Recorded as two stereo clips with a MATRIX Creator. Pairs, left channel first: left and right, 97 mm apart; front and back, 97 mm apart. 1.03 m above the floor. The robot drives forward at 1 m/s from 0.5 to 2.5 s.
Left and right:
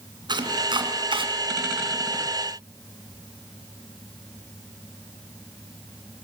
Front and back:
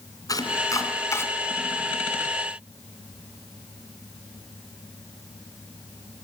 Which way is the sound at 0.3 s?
50° right.